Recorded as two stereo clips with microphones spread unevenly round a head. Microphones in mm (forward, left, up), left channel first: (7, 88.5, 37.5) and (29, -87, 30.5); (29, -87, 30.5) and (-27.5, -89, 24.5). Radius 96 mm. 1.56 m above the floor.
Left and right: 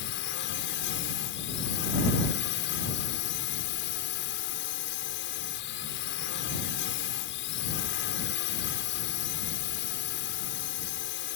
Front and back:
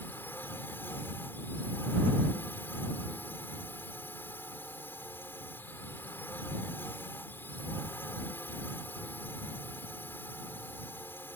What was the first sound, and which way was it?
A drone, 75° left.